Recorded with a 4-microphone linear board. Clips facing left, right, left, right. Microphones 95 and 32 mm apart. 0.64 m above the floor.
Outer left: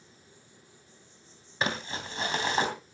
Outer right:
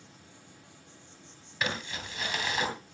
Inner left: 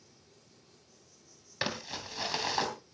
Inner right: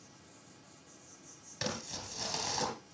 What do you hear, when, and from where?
0.0 s an insect: 70° right (ahead or behind), 8.5 m
1.6 s crumpling: 30° left (ahead or behind), 3 m